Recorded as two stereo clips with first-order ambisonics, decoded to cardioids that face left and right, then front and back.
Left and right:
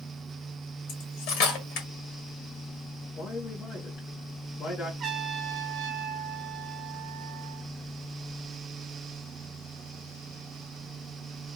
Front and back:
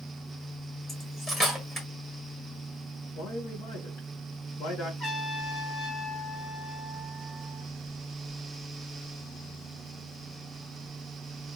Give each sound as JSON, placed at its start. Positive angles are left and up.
{"t": 0.9, "sound": "cutlery clinking", "azimuth_deg": 80, "distance_m": 1.6}
{"t": 3.2, "sound": "a man speaking", "azimuth_deg": 30, "distance_m": 1.9}
{"t": 5.0, "sound": "a trumpet", "azimuth_deg": -50, "distance_m": 1.3}